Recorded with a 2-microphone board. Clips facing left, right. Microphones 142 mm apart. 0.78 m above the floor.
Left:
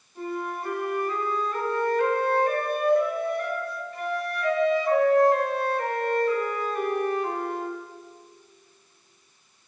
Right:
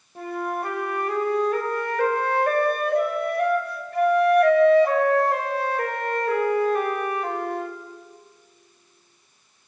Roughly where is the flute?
Right.